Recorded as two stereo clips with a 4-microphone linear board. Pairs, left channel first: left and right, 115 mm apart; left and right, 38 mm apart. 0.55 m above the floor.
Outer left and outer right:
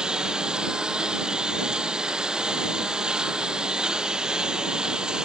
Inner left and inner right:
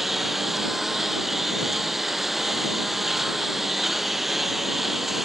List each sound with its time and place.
0.0 s a lawn mower: 5° right (ahead or behind)